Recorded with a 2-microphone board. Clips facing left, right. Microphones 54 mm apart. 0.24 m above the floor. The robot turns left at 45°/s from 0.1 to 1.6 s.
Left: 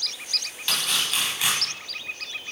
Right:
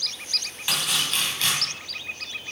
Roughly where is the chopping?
Behind.